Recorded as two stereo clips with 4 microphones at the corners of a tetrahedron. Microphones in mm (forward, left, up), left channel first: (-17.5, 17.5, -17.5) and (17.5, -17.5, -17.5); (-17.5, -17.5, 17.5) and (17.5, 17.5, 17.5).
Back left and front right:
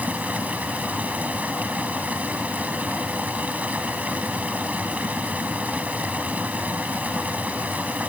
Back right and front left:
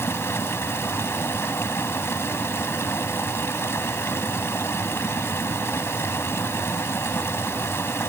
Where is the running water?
105° right.